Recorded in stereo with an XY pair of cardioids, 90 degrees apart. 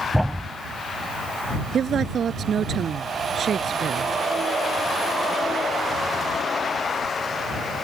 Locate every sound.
0.1 s a thud: straight ahead
1.7 s a woman speaking: 55° right